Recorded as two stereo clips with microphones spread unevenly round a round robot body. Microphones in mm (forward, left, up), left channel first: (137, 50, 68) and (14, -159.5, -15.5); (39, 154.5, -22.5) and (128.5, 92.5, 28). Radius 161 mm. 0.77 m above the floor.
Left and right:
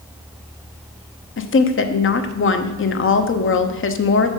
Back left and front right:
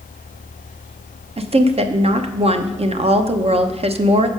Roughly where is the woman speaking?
Ahead.